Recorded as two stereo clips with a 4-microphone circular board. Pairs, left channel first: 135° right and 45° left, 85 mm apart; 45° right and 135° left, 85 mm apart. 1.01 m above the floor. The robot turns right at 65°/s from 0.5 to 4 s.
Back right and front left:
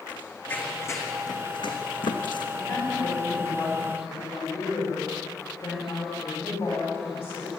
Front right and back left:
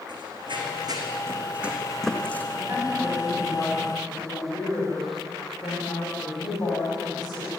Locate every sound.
0.1 s running footsteps: 155° left, 3.5 m; by 2.4 s 115° right, 3 m
2.5 s a woman speaking: 170° right, 7.5 m; by 7.5 s 75° right, 7.5 m